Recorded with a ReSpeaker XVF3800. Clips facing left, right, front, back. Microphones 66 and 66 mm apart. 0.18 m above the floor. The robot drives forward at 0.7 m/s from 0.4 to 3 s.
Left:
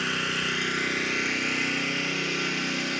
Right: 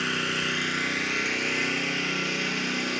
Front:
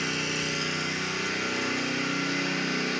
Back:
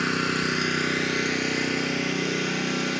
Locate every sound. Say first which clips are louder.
0.0 s an engine running: even, back 6 dB; straight behind, 1.0 m